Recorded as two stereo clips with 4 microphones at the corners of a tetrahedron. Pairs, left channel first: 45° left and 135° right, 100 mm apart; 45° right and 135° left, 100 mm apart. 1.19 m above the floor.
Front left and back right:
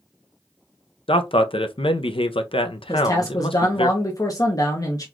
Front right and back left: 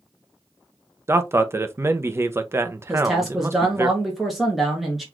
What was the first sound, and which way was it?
A man speaking, 70° left.